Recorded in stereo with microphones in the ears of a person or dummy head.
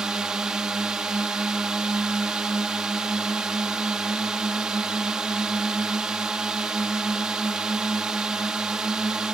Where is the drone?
5° right (ahead or behind).